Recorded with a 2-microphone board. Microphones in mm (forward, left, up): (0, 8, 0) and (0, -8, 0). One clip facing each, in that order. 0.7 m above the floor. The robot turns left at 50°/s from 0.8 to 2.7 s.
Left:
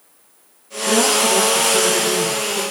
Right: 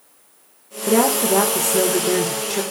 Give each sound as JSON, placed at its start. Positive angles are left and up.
{"t": 0.9, "sound": "a woman speaking", "azimuth_deg": -45, "distance_m": 2.5}